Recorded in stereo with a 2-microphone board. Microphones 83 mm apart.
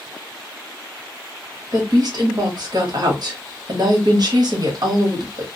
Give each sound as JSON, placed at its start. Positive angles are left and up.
{"t": 1.7, "sound": "a woman speaking", "side_deg": -55, "distance_m": 0.9}